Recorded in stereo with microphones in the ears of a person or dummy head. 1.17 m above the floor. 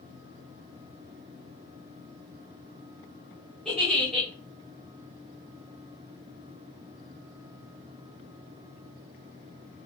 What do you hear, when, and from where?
3.6 s a giggle: 5° left (ahead or behind), 2 m